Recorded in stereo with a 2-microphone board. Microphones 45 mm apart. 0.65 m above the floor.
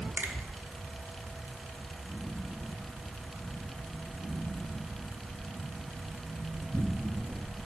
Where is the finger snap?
55° right (ahead or behind), 1.1 m.